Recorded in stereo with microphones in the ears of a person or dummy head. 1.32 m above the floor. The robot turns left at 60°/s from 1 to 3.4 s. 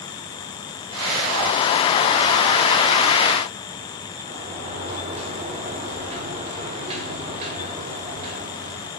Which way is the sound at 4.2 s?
35° right (ahead or behind).